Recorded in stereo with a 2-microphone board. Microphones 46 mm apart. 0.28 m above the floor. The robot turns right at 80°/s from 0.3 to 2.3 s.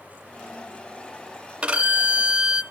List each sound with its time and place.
1.6 s a violin: 25° right (ahead or behind), 1.4 m; by 2.6 s 20° right (ahead or behind), 1.4 m